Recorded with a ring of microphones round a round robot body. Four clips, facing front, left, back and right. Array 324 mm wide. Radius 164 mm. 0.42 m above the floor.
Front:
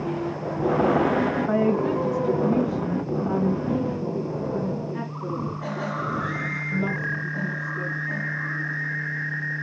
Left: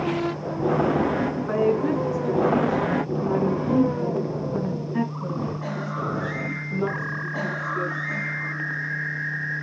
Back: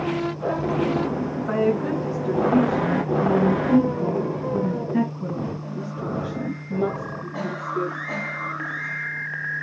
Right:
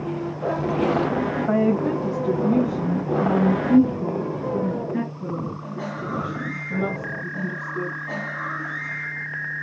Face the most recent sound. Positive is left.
turn(degrees=-155)